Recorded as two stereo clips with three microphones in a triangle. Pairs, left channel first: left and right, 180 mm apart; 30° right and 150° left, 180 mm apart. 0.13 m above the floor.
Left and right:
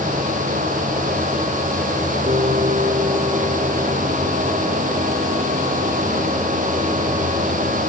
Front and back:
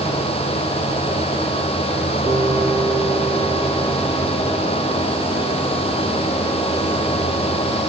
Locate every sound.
2.3 s a piano: 140° right